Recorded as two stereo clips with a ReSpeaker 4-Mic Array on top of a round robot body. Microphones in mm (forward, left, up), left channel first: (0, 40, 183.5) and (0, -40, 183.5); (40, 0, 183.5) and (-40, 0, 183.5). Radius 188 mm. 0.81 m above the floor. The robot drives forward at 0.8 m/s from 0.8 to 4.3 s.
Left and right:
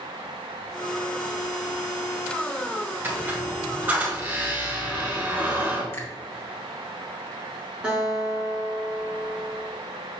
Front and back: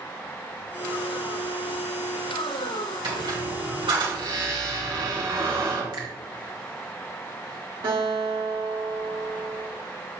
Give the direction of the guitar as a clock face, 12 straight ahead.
6 o'clock.